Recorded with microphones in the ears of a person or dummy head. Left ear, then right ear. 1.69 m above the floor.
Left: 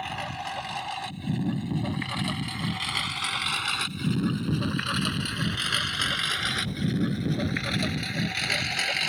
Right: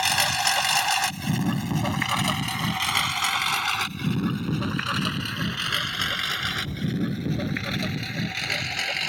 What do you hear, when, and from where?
0.0 s a lawn mower: 65° right (ahead or behind); by 9.1 s centre (ahead or behind)